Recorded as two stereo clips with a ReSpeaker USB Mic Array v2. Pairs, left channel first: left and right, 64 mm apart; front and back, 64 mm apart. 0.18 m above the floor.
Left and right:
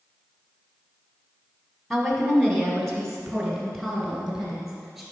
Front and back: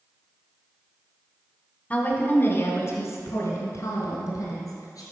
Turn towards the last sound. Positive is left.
turn(degrees=0)